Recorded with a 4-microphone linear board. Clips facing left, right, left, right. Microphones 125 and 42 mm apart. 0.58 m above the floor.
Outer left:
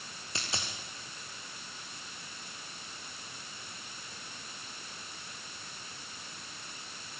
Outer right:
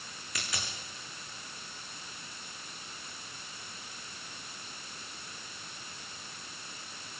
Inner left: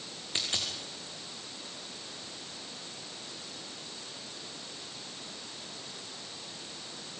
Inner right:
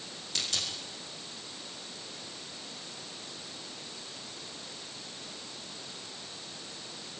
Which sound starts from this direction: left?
A dropped coin, at 0.3 s.